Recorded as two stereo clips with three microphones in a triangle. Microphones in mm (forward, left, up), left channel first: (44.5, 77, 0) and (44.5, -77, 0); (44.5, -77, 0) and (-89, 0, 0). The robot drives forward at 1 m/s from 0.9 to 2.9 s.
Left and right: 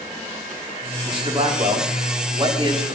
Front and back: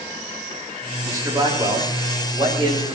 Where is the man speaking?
140° right, 5 m; by 3.0 s 150° right, 6.5 m.